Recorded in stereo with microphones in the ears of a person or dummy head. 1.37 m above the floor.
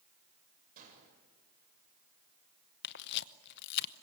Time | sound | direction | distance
0.8 | a gunshot | 40° right (ahead or behind) | 6.5 m
2.8 | a camera shutter | 65° left (ahead or behind) | 0.9 m